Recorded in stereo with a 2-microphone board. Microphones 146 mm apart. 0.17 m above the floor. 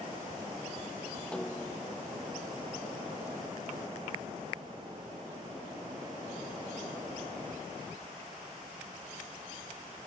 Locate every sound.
1.3 s a snare drum: 5° left (ahead or behind)